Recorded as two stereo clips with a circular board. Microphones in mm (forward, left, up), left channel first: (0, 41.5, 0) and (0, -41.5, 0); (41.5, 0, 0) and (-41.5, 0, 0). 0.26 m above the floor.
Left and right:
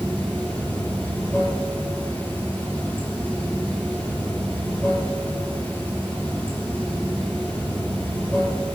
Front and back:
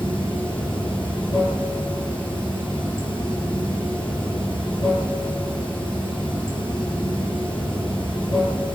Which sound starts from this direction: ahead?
Running water, at 0.0 s.